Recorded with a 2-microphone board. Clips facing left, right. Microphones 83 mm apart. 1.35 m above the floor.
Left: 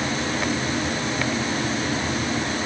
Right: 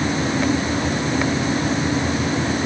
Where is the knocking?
I don't hear knocking.